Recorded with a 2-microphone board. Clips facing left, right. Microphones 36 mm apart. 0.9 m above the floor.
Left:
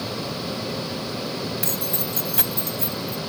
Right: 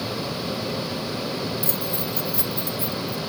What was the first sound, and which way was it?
Keys jangling, 70° left (ahead or behind).